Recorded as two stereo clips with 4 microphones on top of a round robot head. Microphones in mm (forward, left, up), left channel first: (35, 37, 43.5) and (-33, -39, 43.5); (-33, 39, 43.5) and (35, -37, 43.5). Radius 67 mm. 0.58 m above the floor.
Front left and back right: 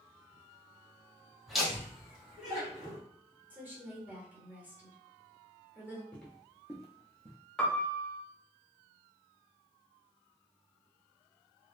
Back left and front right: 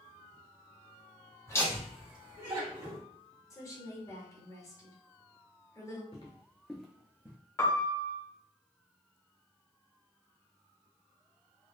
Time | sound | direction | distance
1.5 | laughter | 140° left | 1.3 m
3.5 | a woman speaking | 165° left | 1.6 m
6.1 | footsteps | 120° left | 0.6 m
7.6 | a piano | 120° left | 0.7 m